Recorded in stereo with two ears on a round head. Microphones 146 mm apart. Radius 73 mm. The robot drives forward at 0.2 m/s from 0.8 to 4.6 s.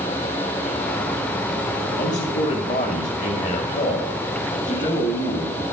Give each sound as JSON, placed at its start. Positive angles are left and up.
{"t": 2.0, "sound": "a man speaking", "side_deg": 40, "distance_m": 3.0}